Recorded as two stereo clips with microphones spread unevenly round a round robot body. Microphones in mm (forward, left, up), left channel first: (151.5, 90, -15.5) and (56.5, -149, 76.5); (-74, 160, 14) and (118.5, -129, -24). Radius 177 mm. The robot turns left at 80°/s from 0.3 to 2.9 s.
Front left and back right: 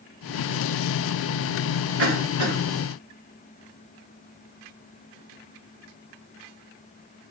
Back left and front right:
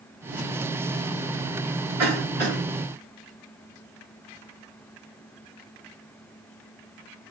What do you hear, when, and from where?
2.0 s a cough: 75° right, 1.9 m; by 2.6 s 120° right, 1.9 m